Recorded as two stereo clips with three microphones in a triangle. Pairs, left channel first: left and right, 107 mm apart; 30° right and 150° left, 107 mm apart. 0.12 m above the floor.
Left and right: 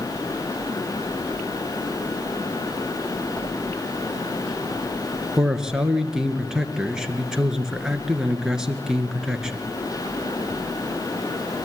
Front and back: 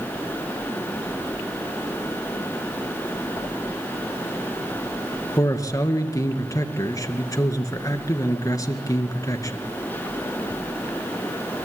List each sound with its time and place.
5.4 s a man speaking: 10° right, 2 m